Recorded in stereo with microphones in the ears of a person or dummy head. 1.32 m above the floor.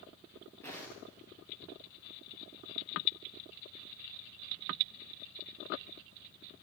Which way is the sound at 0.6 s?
15° left (ahead or behind).